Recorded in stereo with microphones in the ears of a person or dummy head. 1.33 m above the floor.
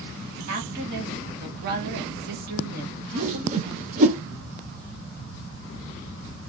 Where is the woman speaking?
55° right (ahead or behind), 1.3 m.